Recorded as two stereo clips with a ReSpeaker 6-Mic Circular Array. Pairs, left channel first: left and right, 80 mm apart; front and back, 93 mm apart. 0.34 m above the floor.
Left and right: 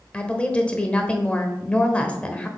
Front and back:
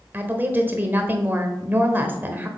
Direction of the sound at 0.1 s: 145° left.